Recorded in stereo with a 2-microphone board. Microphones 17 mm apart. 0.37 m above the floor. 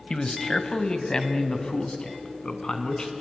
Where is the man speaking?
45° left (ahead or behind), 1.8 m; by 3.1 s 40° left (ahead or behind), 3.5 m.